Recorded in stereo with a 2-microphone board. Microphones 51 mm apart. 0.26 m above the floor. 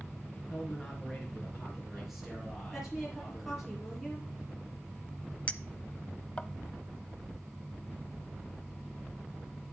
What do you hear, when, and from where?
0.5 s a man speaking: 10° left (ahead or behind), 3.5 m; by 3.7 s 5° right (ahead or behind), 7 m
2.7 s a woman speaking: centre (ahead or behind), 5 m
5.5 s a clink: 25° left (ahead or behind), 0.6 m